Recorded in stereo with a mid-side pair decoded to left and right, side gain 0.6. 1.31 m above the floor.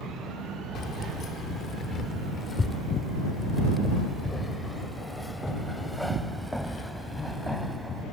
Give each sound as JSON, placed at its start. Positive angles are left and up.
{"t": 0.8, "sound": "keys jangling", "azimuth_deg": 45}